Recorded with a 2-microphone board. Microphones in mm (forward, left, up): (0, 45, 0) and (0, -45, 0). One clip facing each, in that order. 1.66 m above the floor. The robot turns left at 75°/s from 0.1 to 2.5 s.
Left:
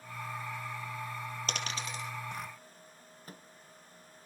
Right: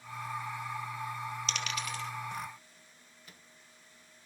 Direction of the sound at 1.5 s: 45° left (ahead or behind).